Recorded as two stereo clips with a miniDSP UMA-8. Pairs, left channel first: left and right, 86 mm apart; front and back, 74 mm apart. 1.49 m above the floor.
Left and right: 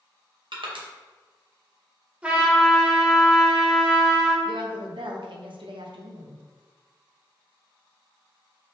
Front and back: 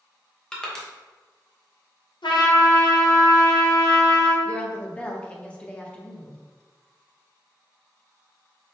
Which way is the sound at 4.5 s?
75° right.